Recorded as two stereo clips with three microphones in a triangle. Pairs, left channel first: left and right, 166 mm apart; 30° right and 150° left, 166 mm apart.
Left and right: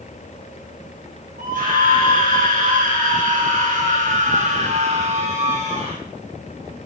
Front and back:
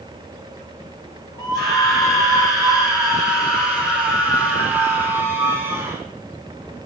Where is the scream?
90° right, 4.5 m; by 6.0 s 135° right, 4 m.